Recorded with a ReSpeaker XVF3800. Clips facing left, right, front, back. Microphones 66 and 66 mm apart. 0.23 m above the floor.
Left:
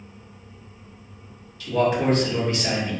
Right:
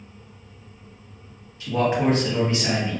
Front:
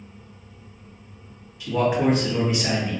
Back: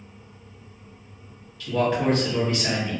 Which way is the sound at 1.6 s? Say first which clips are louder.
Even, front 2 dB; 55° right.